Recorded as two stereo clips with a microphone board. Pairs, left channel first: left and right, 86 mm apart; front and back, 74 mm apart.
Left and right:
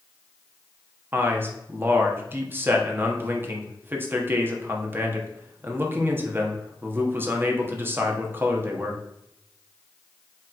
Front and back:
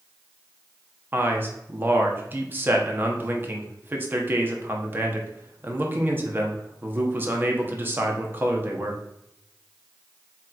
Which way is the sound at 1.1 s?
140° right.